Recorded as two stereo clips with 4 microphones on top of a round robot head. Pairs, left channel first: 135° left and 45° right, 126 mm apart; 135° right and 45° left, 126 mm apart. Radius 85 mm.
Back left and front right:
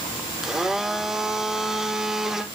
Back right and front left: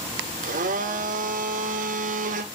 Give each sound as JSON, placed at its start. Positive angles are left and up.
{"t": 0.4, "sound": "a blender", "azimuth_deg": 40, "distance_m": 0.8}